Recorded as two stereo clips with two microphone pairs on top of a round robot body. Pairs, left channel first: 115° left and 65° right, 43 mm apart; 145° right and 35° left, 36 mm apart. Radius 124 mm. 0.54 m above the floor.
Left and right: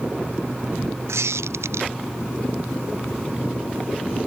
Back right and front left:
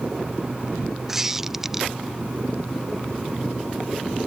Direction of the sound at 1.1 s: 50° right.